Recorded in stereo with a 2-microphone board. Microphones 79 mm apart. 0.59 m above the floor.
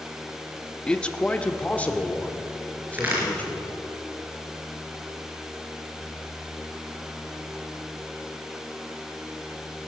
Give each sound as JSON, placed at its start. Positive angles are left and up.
{"t": 0.9, "sound": "a man speaking", "side_deg": 10, "distance_m": 0.7}
{"t": 2.9, "sound": "a crack", "side_deg": -25, "distance_m": 4.5}